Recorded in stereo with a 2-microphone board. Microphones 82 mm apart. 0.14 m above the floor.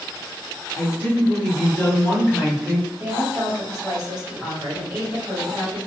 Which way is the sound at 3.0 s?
10° right (ahead or behind).